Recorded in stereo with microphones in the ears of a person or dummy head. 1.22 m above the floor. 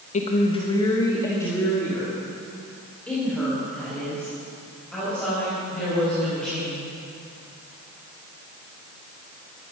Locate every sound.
0.1 s a woman speaking: 40° left (ahead or behind), 1.0 m; by 6.8 s centre (ahead or behind), 7 m